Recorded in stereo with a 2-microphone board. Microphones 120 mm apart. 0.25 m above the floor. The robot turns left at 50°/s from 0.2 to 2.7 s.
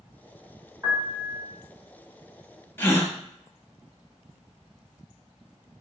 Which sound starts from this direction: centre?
A gasp, at 2.8 s.